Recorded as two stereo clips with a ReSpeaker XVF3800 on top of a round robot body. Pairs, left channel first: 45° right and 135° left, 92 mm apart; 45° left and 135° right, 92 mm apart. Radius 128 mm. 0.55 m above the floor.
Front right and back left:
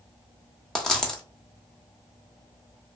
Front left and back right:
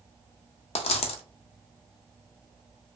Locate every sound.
0.8 s a dropped coin: 40° left, 0.5 m